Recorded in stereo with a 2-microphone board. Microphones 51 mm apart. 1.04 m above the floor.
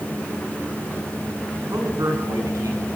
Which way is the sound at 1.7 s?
80° right.